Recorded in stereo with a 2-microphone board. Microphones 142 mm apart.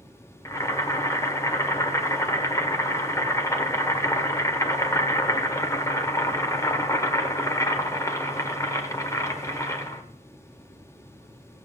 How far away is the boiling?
About 1.2 m.